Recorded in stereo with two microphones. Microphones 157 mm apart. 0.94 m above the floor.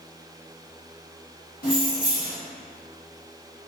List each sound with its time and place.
1.6 s keys jangling: 70° left (ahead or behind), 1.3 m